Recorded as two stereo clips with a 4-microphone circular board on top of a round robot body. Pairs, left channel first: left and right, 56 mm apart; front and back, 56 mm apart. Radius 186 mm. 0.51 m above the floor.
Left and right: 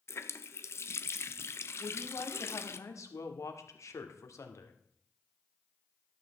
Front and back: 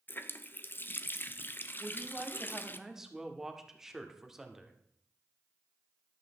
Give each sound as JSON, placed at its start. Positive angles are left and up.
{"t": 0.1, "sound": "a running tap", "azimuth_deg": 50, "distance_m": 0.8}
{"t": 1.8, "sound": "a woman speaking", "azimuth_deg": 100, "distance_m": 2.0}